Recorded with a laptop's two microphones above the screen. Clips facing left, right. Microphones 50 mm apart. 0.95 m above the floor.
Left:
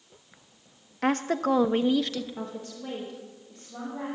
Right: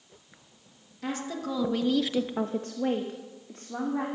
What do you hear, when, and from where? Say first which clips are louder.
1.0 s a woman speaking: left 8 dB; 55° left (ahead or behind), 1.4 m; by 4.0 s 60° right (ahead or behind), 2.5 m